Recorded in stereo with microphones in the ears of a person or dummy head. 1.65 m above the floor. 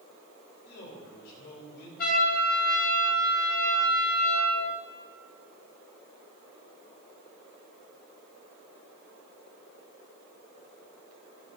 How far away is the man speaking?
About 5.5 m.